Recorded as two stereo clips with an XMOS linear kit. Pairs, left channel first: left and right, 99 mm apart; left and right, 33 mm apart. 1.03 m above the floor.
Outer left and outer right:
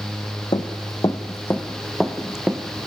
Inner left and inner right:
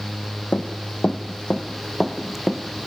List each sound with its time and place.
0.5 s running footsteps: 50° left (ahead or behind), 1.8 m; by 2.9 s 15° right (ahead or behind), 2.5 m